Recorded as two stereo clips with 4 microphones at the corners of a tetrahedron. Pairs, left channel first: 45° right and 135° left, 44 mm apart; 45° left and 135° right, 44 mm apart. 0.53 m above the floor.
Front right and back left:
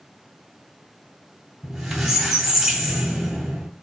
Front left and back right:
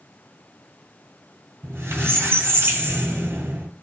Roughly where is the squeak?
Behind right.